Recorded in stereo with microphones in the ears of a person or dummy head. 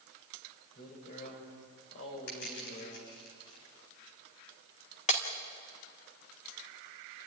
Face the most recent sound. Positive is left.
turn(degrees=35)  # may be behind; listen again after turning